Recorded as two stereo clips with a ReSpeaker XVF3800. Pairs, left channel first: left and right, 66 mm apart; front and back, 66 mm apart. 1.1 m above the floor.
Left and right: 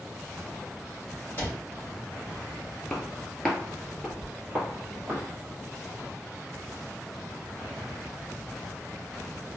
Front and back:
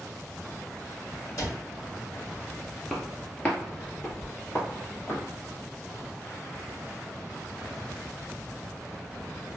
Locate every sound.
1.4 s a cupboard door: 30° left, 1.7 m
2.9 s footsteps: 50° left, 1.1 m; by 5.2 s 35° right, 1.8 m